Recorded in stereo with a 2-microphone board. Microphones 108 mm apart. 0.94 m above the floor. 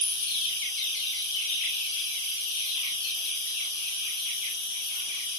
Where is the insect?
40° left (ahead or behind), 2 m.